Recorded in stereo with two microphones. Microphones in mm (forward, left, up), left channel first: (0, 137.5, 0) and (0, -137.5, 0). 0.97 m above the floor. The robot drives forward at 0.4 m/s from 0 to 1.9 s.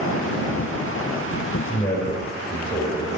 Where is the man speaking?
20° left (ahead or behind), 4 m.